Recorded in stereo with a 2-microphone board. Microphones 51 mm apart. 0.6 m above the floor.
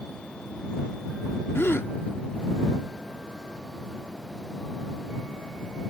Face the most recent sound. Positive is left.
turn(degrees=50)  # may be behind; listen again after turning